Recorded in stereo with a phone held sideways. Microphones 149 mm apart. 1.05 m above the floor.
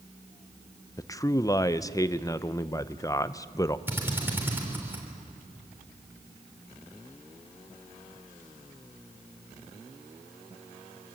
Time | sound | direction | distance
1.0 | a man speaking | 20° left (ahead or behind) | 0.6 m
3.9 | a drill | 15° right (ahead or behind) | 3.5 m